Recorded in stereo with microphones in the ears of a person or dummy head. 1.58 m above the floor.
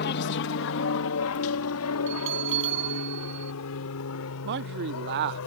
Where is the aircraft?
50° left (ahead or behind); by 5.5 s 75° left (ahead or behind).